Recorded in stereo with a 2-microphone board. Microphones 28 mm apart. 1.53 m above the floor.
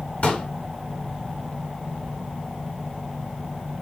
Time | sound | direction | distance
0.2 | a pop | 55° left (ahead or behind) | 3.5 m